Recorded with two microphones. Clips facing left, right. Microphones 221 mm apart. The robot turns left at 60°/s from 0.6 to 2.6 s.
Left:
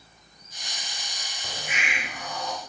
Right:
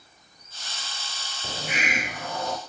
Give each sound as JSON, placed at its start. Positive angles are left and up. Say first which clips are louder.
{"t": 1.4, "sound": "a hiss", "louder": "right 5 dB", "azimuth_deg": -30, "distance_m": 0.6}